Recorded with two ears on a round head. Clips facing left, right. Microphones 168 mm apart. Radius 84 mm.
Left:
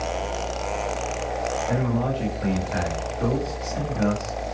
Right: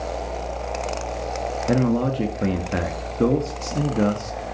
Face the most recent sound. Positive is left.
turn(degrees=-60)  # may be behind; listen again after turning